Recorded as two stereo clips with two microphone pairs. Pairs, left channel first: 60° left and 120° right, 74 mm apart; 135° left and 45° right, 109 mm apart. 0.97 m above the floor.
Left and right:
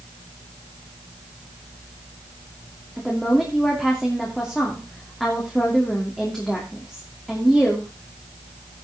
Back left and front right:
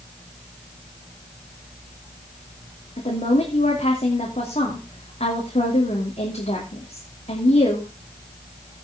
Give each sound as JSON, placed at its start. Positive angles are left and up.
{"t": 3.0, "sound": "a woman speaking", "azimuth_deg": 145, "distance_m": 2.5}